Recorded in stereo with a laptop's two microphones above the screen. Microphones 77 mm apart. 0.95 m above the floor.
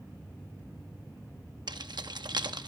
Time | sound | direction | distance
1.7 | keys jangling | 75° right (ahead or behind) | 0.8 m